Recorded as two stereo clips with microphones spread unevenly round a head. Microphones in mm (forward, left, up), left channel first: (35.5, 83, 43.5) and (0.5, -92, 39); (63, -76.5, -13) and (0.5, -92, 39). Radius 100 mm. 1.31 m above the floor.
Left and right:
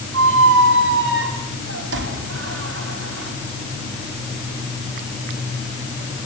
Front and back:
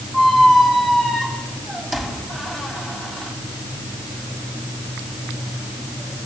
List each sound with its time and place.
0.1 s a squeak: 90° right, 5 m